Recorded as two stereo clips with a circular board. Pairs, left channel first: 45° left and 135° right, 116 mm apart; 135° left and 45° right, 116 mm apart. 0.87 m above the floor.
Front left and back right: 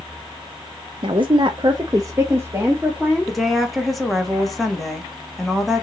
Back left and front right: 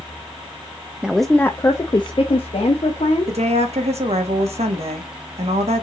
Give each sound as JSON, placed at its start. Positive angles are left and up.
{"t": 1.0, "sound": "a woman speaking", "azimuth_deg": -120, "distance_m": 0.5}
{"t": 3.3, "sound": "a woman speaking", "azimuth_deg": -45, "distance_m": 1.2}